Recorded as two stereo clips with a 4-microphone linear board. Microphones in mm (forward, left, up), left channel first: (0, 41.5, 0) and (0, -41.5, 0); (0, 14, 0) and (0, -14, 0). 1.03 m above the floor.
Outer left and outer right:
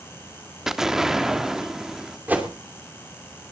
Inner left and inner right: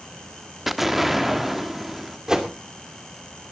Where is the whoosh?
20° right (ahead or behind), 3 m.